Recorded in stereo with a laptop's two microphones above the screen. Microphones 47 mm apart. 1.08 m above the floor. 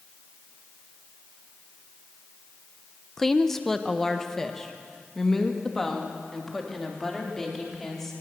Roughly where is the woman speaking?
Centre.